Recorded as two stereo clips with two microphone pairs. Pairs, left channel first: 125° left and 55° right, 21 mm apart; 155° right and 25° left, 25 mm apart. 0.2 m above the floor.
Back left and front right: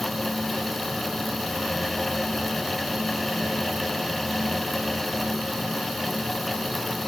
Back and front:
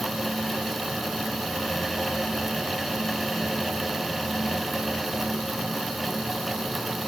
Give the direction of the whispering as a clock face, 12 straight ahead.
No whispering in this recording.